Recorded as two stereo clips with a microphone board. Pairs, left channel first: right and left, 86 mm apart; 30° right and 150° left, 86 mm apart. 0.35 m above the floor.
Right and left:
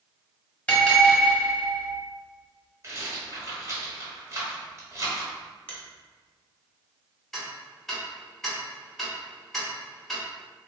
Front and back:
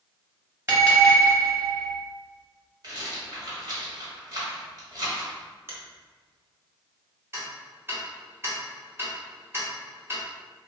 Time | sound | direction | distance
0.7 | a bell | 160° right | 2.0 m
2.8 | a rattle | 135° left | 1.3 m
5.7 | a finger snap | 160° right | 1.0 m
7.3 | ticking | 175° right | 1.1 m